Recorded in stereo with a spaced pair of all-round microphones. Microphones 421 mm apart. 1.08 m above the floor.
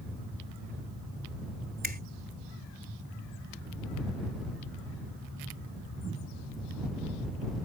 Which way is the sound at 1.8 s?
20° right (ahead or behind).